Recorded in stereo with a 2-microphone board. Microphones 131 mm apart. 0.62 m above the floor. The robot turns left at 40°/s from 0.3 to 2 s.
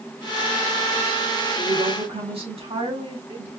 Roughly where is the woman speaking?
Right.